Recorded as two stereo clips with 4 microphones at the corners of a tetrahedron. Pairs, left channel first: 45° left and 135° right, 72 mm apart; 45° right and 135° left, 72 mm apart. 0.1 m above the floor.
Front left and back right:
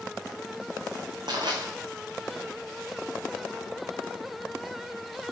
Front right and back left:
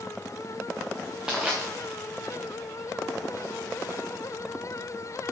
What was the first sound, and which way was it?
Crushing, 145° right.